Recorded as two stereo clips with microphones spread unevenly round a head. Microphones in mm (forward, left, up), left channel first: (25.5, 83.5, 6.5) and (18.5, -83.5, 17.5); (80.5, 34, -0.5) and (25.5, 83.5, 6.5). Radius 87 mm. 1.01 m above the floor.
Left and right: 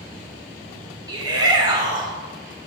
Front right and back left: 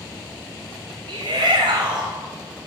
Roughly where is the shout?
Behind.